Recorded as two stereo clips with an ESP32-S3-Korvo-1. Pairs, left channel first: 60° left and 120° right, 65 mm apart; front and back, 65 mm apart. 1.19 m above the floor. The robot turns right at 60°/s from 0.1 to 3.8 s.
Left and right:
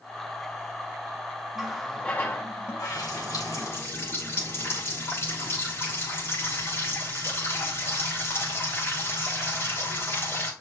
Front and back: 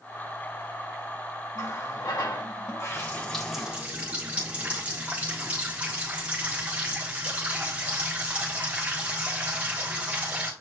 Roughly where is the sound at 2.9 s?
Ahead left.